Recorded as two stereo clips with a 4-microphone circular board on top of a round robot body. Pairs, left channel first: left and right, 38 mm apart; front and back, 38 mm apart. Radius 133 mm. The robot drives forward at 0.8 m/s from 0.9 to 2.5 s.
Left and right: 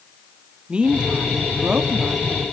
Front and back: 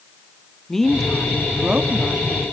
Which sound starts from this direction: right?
A woman speaking, at 0.7 s.